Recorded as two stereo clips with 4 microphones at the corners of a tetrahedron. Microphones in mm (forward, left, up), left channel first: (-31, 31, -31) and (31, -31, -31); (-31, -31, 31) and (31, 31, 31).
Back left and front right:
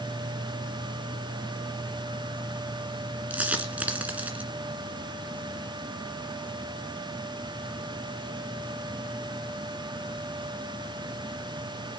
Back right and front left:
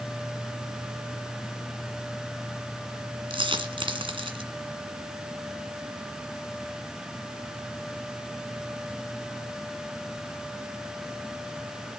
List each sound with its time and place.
3.3 s a dropped coin: 30° left, 1.7 m